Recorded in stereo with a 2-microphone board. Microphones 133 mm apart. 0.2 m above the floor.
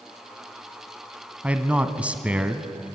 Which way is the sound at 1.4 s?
10° right (ahead or behind).